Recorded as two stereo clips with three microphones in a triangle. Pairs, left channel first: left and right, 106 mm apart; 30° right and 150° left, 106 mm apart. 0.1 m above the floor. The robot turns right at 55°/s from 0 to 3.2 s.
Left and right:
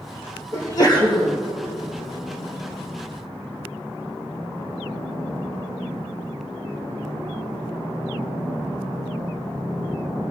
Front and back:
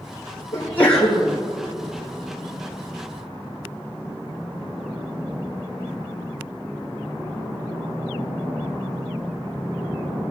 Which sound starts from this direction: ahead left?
A sneeze, at 0.5 s.